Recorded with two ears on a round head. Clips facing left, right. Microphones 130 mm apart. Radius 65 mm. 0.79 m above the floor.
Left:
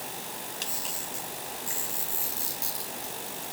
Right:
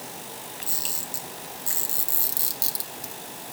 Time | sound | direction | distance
0.6 | a camera shutter | 40° right (ahead or behind) | 3 m